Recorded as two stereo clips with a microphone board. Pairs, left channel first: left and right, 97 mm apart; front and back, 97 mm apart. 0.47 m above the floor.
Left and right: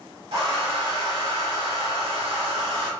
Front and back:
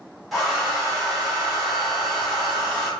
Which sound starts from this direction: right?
A hair dryer, at 0.3 s.